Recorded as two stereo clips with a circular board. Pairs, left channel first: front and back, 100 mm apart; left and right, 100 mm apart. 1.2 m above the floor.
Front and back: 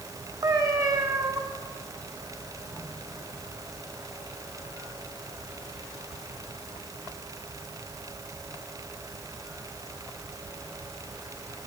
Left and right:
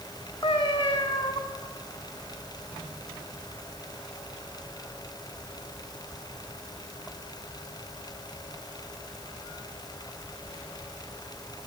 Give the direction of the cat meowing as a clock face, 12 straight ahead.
8 o'clock.